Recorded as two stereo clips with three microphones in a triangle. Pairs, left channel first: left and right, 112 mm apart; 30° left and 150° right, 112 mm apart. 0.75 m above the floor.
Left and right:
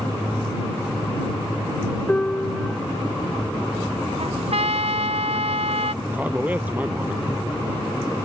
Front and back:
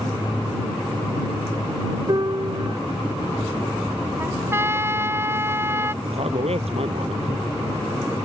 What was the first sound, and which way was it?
A piano, 170° left.